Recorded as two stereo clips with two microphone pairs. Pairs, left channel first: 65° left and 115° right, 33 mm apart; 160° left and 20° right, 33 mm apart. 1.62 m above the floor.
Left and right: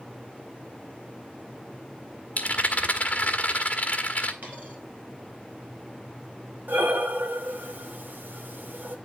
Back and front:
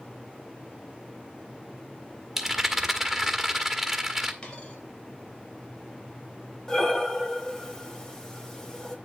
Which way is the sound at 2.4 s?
60° left.